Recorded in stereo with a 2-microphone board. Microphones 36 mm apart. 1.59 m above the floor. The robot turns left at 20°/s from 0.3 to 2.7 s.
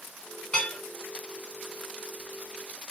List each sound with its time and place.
0.5 s dishes clattering: 35° left (ahead or behind), 1.4 m; by 0.8 s 40° left (ahead or behind), 1.4 m